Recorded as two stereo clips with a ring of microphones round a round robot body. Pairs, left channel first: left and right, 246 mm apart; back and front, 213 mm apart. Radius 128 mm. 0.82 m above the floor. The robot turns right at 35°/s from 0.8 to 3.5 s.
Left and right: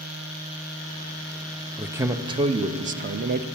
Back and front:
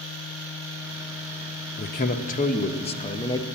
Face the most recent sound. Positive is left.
turn(degrees=-110)